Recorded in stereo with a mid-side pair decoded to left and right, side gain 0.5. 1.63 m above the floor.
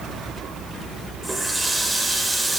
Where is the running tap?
15° right, 4.5 m.